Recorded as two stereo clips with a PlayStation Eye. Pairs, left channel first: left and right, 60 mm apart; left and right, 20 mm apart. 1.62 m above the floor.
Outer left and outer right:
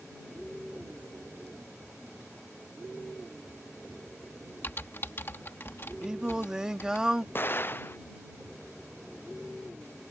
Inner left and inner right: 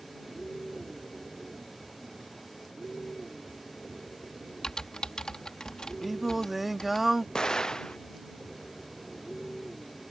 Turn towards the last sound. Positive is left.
turn(degrees=40)  # may be behind; listen again after turning